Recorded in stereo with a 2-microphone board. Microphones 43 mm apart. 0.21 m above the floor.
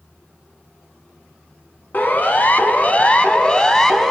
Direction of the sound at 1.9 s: 45° left (ahead or behind).